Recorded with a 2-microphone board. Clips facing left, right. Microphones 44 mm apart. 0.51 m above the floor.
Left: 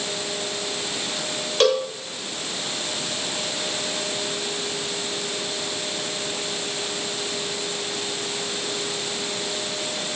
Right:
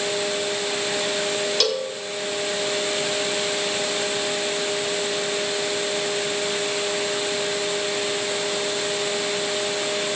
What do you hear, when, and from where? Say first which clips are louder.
1.6 s a cowbell: left 4 dB; 35° left (ahead or behind), 1.7 m